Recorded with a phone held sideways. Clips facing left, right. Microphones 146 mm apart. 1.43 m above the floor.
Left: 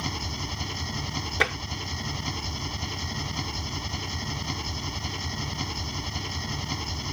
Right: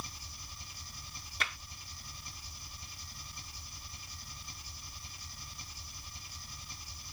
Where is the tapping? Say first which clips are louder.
Left 13 dB; 75° left (ahead or behind).